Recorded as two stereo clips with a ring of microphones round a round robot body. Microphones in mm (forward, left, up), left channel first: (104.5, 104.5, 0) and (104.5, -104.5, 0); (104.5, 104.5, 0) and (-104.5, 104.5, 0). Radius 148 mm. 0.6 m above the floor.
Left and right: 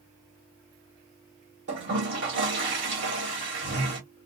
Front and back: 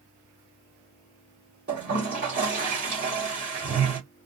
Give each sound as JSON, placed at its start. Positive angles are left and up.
{"t": 1.7, "sound": "a toilet flushing", "azimuth_deg": -125, "distance_m": 1.3}